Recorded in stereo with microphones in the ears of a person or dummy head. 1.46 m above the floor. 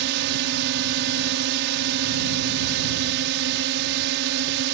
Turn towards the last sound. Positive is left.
turn(degrees=-65)  # may be behind; listen again after turning